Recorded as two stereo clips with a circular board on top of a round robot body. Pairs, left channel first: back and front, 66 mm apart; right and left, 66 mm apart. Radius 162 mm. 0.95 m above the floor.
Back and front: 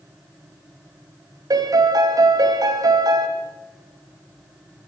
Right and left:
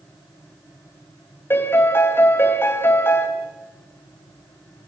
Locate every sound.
1.5 s a piano: 30° right, 2.5 m